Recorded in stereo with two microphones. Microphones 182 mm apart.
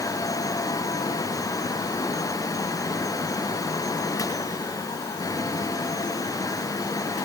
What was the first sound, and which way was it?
Only background noise.